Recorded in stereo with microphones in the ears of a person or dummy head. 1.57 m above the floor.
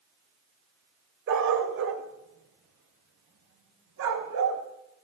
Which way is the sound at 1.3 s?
60° right (ahead or behind).